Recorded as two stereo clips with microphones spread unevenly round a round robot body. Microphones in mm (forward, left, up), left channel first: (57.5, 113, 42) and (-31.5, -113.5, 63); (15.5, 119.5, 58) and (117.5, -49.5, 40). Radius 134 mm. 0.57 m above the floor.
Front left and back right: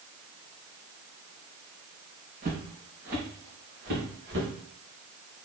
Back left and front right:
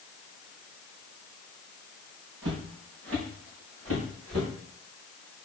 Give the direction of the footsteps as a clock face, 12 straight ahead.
2 o'clock.